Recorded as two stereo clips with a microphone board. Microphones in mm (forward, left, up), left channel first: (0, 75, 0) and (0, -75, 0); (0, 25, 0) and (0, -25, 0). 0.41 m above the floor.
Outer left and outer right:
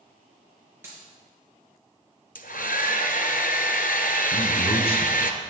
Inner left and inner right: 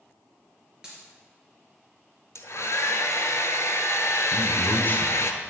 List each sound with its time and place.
0.8 s a dropped coin: 15° right (ahead or behind), 4 m
2.4 s a hair dryer: 75° left (ahead or behind), 1.0 m
4.3 s a man speaking: 40° left (ahead or behind), 1.7 m